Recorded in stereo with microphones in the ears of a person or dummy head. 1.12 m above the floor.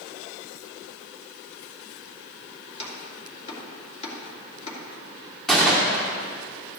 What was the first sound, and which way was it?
Chopping, 35° left (ahead or behind).